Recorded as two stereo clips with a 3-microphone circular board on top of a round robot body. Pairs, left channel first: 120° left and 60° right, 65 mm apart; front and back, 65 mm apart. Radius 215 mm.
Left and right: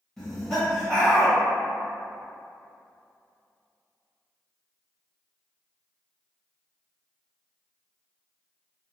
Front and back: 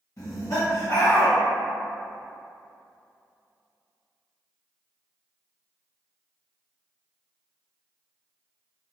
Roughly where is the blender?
No blender in this recording.